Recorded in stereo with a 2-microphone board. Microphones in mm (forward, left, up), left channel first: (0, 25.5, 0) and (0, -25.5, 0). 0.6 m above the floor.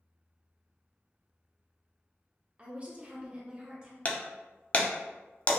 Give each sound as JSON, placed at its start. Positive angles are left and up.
{"t": 2.6, "sound": "a woman speaking", "side_deg": -25, "distance_m": 0.8}
{"t": 4.0, "sound": "breaking glass", "side_deg": 30, "distance_m": 0.5}